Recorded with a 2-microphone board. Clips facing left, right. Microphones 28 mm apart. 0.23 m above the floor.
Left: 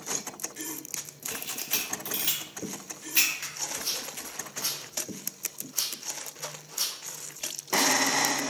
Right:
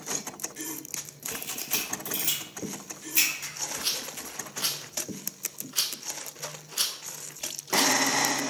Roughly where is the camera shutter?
Left.